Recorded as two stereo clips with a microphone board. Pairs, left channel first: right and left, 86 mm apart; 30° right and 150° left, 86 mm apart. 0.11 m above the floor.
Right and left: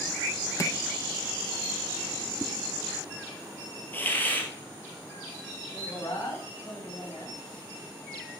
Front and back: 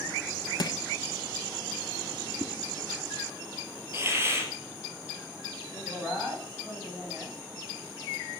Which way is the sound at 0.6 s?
45° right.